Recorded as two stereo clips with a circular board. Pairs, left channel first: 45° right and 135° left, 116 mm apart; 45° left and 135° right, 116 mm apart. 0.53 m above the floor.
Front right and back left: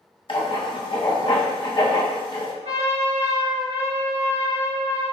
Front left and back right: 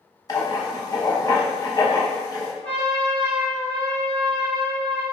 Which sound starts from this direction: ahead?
Writing, at 0.3 s.